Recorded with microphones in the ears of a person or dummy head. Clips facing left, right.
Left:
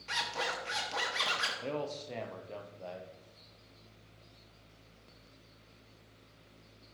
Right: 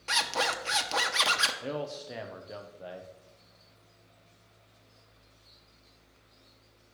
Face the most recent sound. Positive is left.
turn(degrees=-10)  # may be behind; listen again after turning